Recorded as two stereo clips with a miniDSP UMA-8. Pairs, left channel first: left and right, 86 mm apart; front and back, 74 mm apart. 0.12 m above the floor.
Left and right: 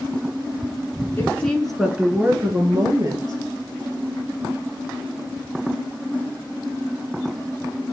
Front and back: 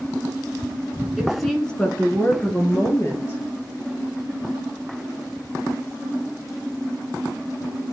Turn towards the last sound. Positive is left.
turn(degrees=-50)